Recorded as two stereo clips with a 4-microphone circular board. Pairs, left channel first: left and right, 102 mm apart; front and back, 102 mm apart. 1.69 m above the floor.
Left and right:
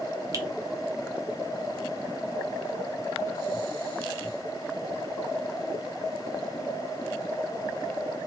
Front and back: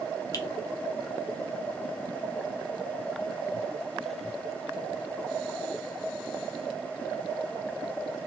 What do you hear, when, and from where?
0.3 s a finger snap: 45° right, 0.6 m